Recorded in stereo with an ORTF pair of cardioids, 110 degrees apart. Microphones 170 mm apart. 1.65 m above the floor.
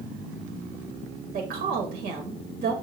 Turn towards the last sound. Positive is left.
turn(degrees=-70)